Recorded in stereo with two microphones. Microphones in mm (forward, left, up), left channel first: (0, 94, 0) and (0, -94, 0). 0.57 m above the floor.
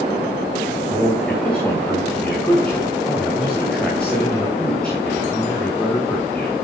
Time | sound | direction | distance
0.9 | a man speaking | 5° left (ahead or behind) | 3 m